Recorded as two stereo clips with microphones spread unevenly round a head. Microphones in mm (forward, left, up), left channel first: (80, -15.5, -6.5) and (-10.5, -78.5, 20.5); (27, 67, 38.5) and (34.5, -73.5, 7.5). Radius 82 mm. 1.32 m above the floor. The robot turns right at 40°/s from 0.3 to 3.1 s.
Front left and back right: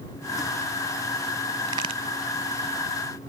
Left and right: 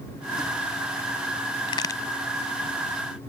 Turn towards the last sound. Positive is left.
turn(degrees=-150)